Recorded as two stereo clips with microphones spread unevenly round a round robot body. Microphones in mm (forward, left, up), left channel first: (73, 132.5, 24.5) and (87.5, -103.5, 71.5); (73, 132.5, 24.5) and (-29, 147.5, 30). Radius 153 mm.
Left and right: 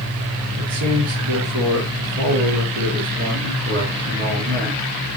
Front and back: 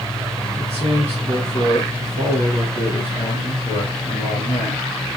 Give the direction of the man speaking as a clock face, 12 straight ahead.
2 o'clock.